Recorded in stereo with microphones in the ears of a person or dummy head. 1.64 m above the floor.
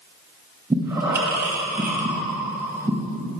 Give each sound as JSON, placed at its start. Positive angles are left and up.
{"t": 0.7, "sound": "breathing", "side_deg": -20, "distance_m": 0.6}